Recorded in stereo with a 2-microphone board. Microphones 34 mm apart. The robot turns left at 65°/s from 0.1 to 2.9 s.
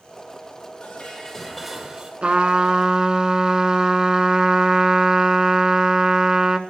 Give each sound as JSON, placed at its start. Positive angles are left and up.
{"t": 0.8, "sound": "dishes clattering", "azimuth_deg": 55, "distance_m": 3.0}
{"t": 2.2, "sound": "a trumpet", "azimuth_deg": -90, "distance_m": 1.4}